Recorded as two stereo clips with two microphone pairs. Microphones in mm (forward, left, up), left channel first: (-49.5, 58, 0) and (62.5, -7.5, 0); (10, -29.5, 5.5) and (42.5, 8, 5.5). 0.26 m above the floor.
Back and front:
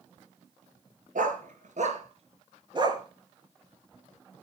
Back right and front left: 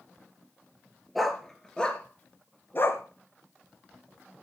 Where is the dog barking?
40° right, 2.0 m; by 3.0 s 90° right, 1.6 m.